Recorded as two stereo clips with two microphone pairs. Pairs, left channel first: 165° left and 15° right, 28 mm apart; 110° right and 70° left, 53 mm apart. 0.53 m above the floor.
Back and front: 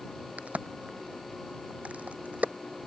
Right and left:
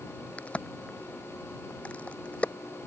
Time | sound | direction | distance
0.4 | a crack | 45° right | ?